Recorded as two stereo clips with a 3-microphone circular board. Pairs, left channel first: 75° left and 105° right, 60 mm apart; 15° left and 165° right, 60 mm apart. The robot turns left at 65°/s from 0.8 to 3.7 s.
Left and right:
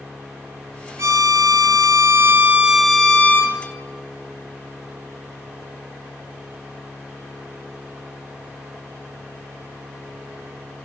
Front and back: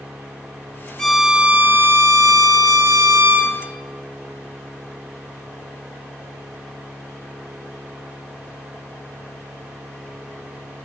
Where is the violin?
65° right, 0.9 m; by 3.5 s 125° left, 0.9 m.